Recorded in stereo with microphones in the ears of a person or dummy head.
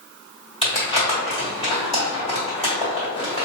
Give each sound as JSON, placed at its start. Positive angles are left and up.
{"t": 0.6, "sound": "crumpling", "side_deg": 30, "distance_m": 1.8}